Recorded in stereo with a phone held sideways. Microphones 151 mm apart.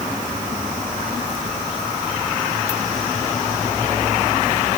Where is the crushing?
No crushing in this recording.